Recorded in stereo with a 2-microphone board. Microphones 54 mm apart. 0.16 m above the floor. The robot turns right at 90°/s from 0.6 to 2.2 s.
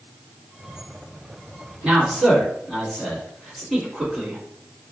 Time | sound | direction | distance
1.8 | a man speaking | 20° right (ahead or behind) | 1.4 m